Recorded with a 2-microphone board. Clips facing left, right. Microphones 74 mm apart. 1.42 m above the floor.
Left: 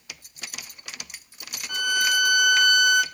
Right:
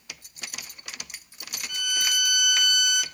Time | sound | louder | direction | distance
1.7 | a violin | left 7 dB | 45° left (ahead or behind) | 0.8 m